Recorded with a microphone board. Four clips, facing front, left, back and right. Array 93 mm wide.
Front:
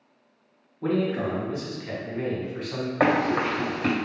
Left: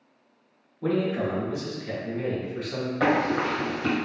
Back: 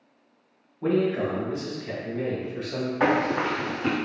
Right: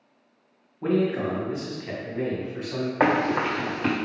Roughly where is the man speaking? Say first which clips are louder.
Right 2 dB, back 2 dB; right.